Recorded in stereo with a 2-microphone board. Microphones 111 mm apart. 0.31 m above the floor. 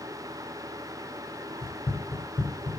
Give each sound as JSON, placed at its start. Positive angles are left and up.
{"t": 1.6, "sound": "running footsteps", "side_deg": 85, "distance_m": 3.0}